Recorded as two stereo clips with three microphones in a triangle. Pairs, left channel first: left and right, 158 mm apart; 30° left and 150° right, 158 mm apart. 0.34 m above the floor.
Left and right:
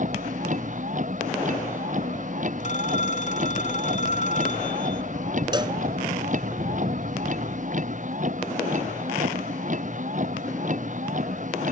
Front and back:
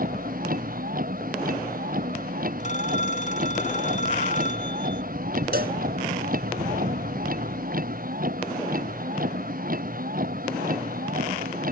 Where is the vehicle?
125° right.